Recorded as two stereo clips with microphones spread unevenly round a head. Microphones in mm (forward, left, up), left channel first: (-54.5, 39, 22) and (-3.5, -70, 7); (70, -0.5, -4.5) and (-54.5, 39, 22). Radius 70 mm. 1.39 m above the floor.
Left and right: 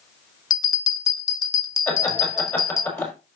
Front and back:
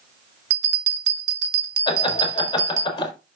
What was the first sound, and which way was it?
A bell, 175° left.